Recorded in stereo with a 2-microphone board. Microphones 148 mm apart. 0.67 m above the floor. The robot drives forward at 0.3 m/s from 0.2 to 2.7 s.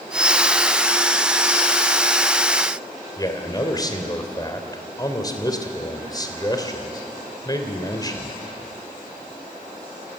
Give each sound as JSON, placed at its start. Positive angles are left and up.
{"t": 3.2, "sound": "a man speaking", "side_deg": 25, "distance_m": 3.0}